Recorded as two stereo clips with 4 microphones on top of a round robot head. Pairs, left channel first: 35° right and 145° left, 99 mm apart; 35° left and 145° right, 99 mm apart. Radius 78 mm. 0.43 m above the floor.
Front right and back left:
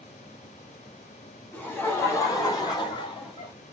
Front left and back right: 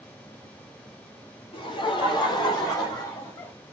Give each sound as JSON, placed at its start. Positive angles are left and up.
{"t": 1.5, "sound": "laughter", "azimuth_deg": 30, "distance_m": 2.0}